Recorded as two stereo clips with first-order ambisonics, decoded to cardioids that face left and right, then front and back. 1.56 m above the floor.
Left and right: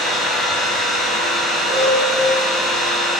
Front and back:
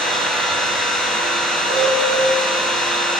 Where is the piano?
135° right, 1.4 m.